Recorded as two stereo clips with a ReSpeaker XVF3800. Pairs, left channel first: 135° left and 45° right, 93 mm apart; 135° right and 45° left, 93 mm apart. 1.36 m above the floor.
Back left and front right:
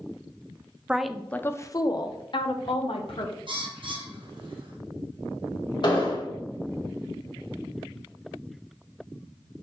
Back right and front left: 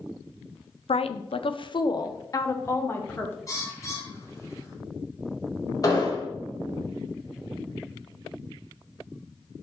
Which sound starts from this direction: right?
A bird, at 3.5 s.